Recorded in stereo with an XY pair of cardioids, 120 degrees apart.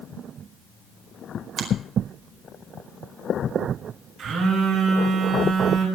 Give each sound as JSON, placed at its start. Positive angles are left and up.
{"t": 1.6, "sound": "a finger snap", "azimuth_deg": -50, "distance_m": 5.0}
{"t": 4.2, "sound": "a phone buzzing", "azimuth_deg": -60, "distance_m": 8.0}